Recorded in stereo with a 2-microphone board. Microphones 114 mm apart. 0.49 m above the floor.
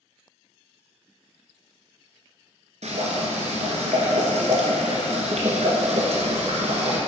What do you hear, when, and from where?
2.8 s boiling: 80° right, 1.5 m